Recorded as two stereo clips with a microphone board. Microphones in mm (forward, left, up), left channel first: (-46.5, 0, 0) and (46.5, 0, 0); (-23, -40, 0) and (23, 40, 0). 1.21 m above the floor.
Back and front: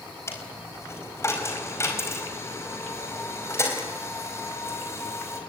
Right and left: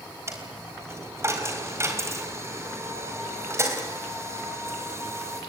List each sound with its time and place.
0.3 s a dropped coin: 120° left, 4 m